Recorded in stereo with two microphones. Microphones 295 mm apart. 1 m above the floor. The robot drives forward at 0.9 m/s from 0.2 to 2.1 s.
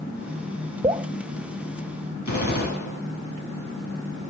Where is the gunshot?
70° left (ahead or behind), 6.5 m.